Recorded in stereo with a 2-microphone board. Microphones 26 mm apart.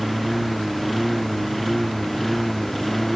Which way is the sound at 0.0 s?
Centre (ahead or behind).